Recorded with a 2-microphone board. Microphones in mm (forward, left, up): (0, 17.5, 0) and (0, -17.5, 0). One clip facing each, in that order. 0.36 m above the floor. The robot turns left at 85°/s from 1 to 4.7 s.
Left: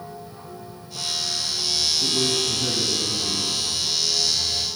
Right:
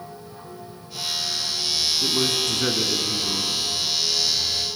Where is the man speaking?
25° right, 3.5 m; by 3.5 s 155° right, 3.5 m.